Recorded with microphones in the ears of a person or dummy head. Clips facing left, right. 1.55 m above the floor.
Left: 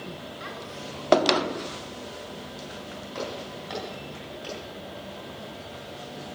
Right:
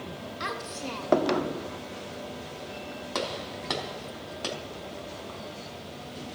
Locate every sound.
0.4 s a child speaking: 65° right (ahead or behind), 2 m; by 1.4 s 80° right, 3 m
3.1 s a gunshot: 70° right (ahead or behind), 3.5 m